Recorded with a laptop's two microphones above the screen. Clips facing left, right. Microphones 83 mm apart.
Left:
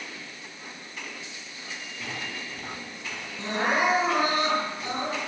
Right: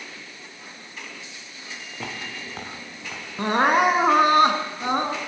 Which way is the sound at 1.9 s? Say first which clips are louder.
Right 2 dB; 65° right (ahead or behind).